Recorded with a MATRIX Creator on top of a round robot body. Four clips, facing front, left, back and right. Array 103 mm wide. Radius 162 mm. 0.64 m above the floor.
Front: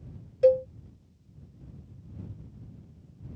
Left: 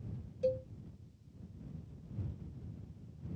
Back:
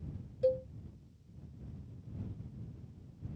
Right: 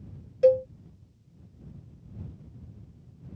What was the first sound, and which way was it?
A cowbell, 50° right.